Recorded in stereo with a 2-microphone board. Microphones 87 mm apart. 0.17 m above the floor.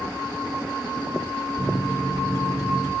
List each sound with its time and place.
1.6 s a microwave: 30° left (ahead or behind), 2 m